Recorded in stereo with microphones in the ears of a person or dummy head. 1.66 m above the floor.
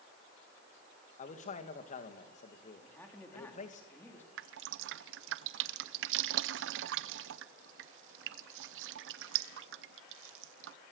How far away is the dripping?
About 0.8 m.